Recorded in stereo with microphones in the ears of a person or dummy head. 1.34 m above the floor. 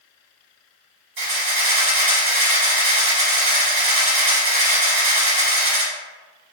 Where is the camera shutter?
50° right (ahead or behind), 1.2 m.